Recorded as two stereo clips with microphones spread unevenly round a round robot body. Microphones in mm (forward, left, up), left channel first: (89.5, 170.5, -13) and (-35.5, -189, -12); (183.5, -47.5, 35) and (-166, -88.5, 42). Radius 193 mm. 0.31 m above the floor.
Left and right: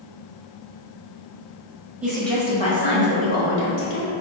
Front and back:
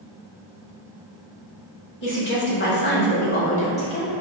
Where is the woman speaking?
25° right, 1.1 m; by 4.1 s 75° left, 1.4 m.